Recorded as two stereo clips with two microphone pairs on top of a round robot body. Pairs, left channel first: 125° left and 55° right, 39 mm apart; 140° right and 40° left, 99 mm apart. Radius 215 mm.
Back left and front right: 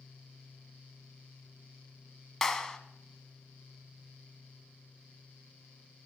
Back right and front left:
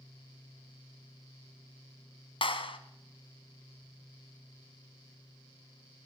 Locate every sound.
2.4 s a clap: 150° right, 1.1 m